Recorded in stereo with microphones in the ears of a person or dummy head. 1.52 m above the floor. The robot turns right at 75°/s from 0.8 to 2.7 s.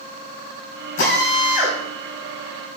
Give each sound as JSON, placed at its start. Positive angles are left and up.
{"t": 1.0, "sound": "a drill", "azimuth_deg": 100, "distance_m": 6.5}